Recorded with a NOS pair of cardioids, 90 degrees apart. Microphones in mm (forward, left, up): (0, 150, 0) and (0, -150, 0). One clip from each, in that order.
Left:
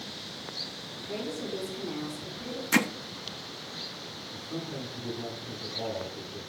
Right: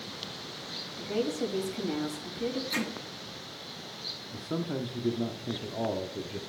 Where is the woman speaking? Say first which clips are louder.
Right 5 dB; 50° right, 3.5 m.